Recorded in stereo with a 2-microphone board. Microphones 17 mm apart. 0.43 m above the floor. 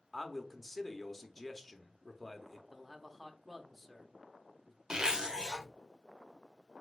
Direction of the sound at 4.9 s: 50° right (ahead or behind).